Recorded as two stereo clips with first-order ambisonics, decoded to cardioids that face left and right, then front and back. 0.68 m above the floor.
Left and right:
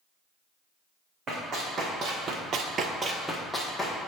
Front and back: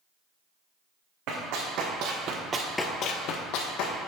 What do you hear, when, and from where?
1.3 s running footsteps: 155° right, 2.5 m; by 4.0 s 5° left, 2.0 m